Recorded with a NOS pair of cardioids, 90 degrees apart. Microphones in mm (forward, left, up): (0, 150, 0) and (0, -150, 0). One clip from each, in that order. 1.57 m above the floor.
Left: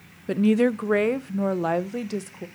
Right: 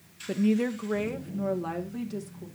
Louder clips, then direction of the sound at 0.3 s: Left 7 dB; 30° left.